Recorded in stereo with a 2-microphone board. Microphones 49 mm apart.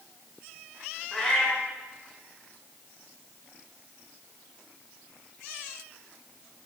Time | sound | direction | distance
1.1 | a cat meowing | 20° left (ahead or behind) | 1.3 m